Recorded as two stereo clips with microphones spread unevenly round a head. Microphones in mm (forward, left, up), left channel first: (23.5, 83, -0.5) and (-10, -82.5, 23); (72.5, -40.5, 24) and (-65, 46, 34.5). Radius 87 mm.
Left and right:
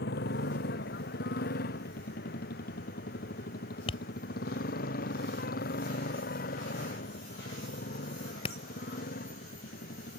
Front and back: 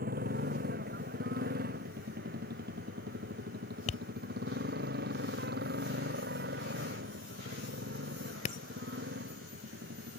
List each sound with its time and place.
0.0 s a motorcycle: 110° left; by 10.2 s 120° left
3.9 s tapping: 20° left